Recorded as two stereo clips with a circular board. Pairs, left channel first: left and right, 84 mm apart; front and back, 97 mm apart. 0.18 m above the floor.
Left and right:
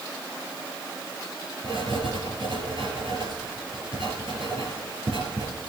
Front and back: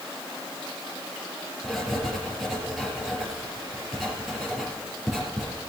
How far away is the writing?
About 4 m.